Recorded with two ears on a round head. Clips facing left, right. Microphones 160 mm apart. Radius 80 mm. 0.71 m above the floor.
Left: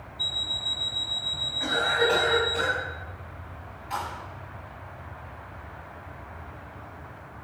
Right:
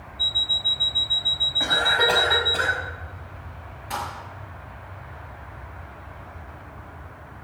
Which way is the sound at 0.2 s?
Centre (ahead or behind).